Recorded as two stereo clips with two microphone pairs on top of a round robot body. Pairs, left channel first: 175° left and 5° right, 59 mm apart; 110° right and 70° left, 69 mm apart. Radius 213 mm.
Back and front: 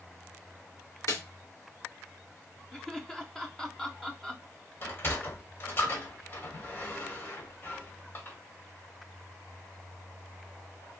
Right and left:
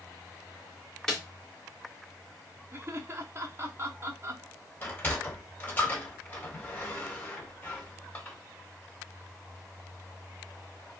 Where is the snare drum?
175° left, 1.9 m.